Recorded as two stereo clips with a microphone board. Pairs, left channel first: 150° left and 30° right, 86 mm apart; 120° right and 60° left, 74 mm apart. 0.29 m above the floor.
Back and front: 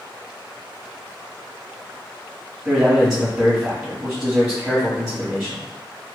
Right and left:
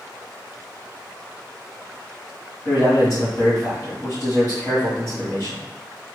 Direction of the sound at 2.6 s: 110° right.